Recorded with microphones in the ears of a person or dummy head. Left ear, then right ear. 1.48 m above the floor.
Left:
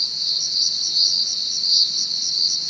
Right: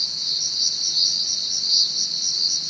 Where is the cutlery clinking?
I don't hear cutlery clinking.